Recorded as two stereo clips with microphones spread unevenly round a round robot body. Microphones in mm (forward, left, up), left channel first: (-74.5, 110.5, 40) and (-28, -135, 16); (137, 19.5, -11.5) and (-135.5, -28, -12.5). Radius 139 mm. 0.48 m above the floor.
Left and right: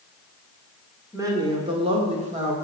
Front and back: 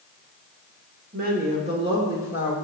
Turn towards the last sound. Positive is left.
turn(degrees=-90)